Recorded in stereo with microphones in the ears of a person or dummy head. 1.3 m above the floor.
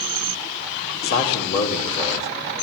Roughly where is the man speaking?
Left.